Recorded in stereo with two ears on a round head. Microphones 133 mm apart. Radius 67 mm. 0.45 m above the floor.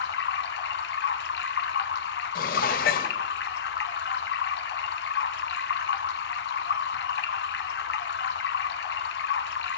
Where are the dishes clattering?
65° left (ahead or behind), 1.3 m.